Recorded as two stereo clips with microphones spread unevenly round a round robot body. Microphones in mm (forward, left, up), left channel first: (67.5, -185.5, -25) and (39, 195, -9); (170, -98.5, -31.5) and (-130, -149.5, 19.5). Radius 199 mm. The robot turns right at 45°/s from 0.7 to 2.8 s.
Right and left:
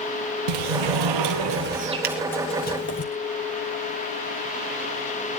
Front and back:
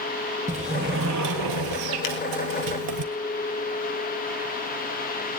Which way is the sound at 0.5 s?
115° left.